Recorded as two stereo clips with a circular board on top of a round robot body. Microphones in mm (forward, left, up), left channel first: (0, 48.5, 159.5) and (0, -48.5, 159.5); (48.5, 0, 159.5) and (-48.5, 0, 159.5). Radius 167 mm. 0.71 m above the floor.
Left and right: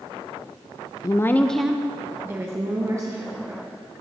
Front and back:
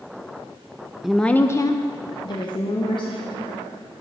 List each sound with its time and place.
1.0 s a woman speaking: 95° left, 0.6 m; by 3.6 s 35° right, 1.6 m